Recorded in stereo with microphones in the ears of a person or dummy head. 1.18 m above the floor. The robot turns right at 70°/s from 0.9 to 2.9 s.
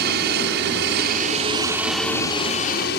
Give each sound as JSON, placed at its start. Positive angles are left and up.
{"t": 0.0, "sound": "a helicopter", "side_deg": -55}